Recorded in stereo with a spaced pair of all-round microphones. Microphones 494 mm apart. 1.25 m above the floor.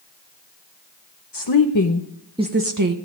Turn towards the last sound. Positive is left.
turn(degrees=-45)  # may be behind; listen again after turning